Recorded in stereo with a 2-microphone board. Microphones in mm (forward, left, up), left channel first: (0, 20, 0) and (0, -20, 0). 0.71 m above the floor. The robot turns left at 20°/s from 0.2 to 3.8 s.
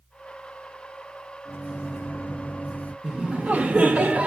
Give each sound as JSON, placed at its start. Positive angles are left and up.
{"t": 1.4, "sound": "a microwave", "side_deg": 65, "distance_m": 0.5}
{"t": 3.0, "sound": "laughter", "side_deg": -30, "distance_m": 0.8}